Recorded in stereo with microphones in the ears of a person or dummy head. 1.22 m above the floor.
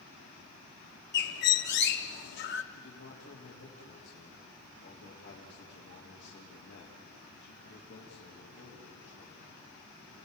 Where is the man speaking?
65° left (ahead or behind), 3 m.